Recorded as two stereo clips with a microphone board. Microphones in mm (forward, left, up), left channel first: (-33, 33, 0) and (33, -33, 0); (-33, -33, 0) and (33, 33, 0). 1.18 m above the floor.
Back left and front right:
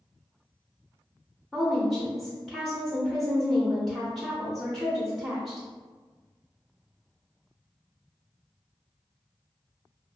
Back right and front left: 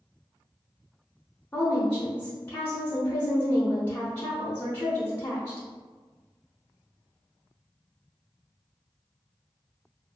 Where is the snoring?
I don't hear snoring.